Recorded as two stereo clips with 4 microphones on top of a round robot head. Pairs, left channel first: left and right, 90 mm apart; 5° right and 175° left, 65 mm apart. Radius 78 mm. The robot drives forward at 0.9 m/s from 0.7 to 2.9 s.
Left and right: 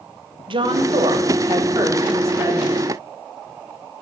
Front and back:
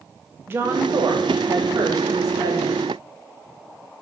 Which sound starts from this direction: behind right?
A woman speaking, at 0.5 s.